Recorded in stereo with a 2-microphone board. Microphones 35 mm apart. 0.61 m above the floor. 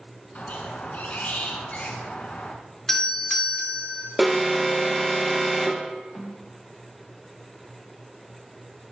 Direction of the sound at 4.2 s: 5° right (ahead or behind).